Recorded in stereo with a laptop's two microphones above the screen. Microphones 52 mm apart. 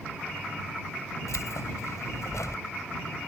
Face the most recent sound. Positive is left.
turn(degrees=90)